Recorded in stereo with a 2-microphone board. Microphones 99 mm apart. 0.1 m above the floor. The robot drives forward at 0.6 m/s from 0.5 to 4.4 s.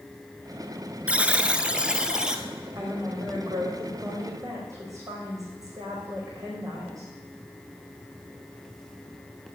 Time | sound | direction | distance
1.1 | a buzzer | 15° right (ahead or behind) | 0.6 m
2.8 | a woman speaking | 40° right (ahead or behind) | 5 m